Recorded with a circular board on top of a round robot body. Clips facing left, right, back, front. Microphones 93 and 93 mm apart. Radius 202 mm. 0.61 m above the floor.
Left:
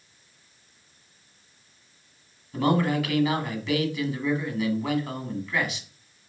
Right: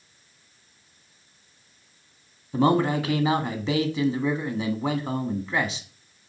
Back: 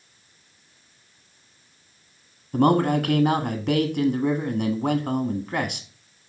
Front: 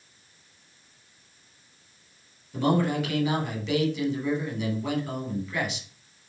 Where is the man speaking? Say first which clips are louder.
Right 2 dB, back 5 dB; 145° right, 1.8 m.